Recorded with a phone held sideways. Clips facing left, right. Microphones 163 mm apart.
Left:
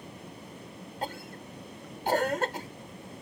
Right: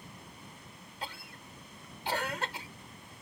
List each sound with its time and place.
0.0 s a fan: 75° left (ahead or behind)
1.0 s a cough: 50° left (ahead or behind)